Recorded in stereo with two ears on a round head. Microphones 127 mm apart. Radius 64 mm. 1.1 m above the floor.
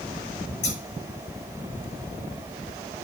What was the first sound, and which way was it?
Scissors, 50° left (ahead or behind).